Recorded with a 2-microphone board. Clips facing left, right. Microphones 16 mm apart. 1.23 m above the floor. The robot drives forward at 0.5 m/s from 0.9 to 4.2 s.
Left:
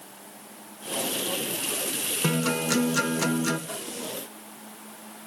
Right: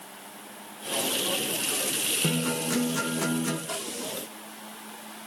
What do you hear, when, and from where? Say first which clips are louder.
2.2 s a guitar: left 2 dB; 85° left, 1.3 m; by 3.6 s 60° left (ahead or behind), 1.5 m
3.7 s a snare drum: right 2 dB; 45° right (ahead or behind), 2 m; by 4.0 s 40° right (ahead or behind), 2 m